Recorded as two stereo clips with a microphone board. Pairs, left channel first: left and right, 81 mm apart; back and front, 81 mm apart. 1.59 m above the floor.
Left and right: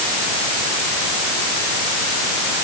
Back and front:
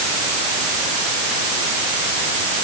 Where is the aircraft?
No aircraft in this recording.